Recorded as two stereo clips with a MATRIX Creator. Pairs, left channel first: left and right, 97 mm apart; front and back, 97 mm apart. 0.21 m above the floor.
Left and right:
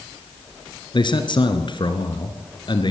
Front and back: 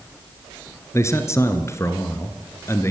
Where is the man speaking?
60° left, 3 m.